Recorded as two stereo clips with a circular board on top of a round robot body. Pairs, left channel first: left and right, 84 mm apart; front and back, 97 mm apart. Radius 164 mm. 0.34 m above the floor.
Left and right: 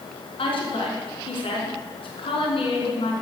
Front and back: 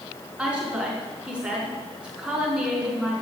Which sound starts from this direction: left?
A woman speaking, at 0.4 s.